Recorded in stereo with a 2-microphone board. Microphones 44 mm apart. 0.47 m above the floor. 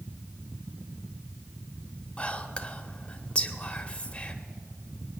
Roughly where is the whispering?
Left.